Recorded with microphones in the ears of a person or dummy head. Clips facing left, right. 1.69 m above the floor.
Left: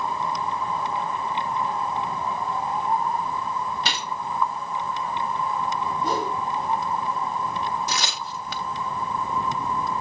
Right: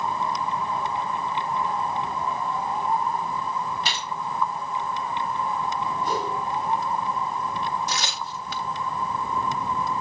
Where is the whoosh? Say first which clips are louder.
Left 2 dB; 85° left, 3.5 m.